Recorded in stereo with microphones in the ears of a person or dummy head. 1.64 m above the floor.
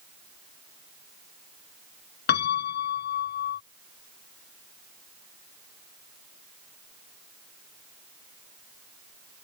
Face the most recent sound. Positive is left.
turn(degrees=60)  # may be behind; listen again after turning